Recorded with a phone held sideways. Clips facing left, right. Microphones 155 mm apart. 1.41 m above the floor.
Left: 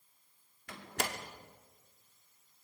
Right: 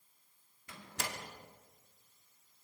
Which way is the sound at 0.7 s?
70° left (ahead or behind).